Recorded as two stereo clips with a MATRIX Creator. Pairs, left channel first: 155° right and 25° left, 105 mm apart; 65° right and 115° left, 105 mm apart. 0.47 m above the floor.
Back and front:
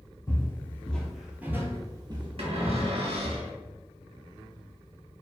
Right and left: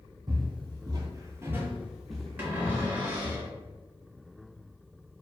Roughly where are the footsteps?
Behind left.